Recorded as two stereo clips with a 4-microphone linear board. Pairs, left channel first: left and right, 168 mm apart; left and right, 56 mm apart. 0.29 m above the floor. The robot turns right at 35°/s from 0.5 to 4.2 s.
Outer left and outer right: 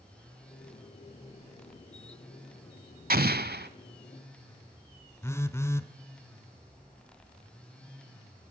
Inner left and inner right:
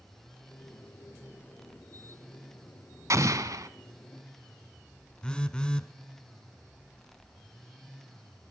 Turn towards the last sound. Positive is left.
turn(degrees=15)  # may be behind; listen again after turning